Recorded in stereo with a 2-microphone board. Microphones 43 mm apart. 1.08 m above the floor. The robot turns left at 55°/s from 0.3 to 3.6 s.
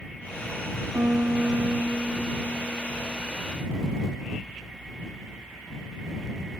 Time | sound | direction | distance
0.9 | a piano | 65° right | ?